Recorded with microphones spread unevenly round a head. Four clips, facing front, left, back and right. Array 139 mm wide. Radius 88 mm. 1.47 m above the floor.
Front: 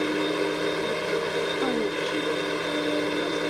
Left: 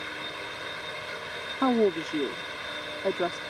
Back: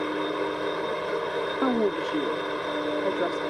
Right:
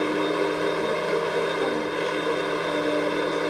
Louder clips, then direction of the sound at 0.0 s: Right 15 dB, front 2 dB; 70° right.